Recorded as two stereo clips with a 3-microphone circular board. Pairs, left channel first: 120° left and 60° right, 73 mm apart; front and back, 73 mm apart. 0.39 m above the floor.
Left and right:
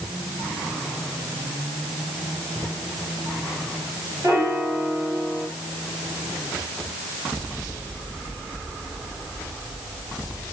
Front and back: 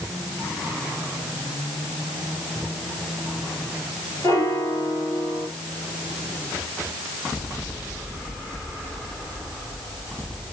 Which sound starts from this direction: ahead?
A piano, at 4.2 s.